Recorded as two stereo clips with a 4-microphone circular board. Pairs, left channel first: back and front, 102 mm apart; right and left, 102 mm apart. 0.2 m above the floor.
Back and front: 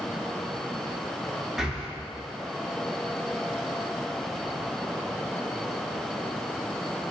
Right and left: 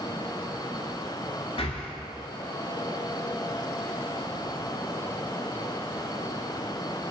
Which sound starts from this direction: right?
Breathing, at 1.6 s.